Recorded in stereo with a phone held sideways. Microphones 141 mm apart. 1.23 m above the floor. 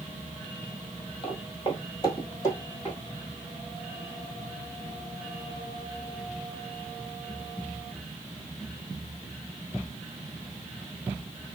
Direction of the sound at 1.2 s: 40° left (ahead or behind).